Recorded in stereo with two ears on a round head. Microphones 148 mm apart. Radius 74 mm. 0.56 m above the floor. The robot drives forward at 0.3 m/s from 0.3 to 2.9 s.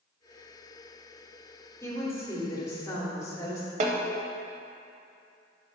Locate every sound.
1.8 s a woman speaking: 15° left (ahead or behind), 1.6 m; by 3.7 s 20° left (ahead or behind), 1.4 m
3.8 s a snare drum: 45° right (ahead or behind), 0.8 m